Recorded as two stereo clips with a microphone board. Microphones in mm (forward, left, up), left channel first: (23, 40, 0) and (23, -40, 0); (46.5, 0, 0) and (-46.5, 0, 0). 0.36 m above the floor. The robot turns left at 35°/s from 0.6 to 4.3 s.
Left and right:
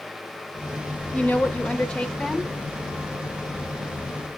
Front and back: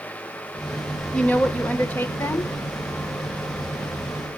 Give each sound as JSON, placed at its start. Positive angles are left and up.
{"t": 1.1, "sound": "a woman speaking", "azimuth_deg": 50, "distance_m": 0.9}